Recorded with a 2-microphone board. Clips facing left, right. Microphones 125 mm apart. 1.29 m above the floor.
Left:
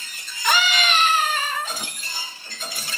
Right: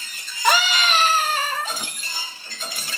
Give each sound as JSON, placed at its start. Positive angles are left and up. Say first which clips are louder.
{"t": 0.4, "sound": "a scream", "louder": "right 2 dB", "side_deg": -40, "distance_m": 4.5}